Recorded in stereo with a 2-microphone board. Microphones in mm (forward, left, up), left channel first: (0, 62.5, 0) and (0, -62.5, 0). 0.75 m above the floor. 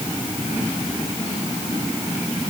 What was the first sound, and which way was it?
Only background noise.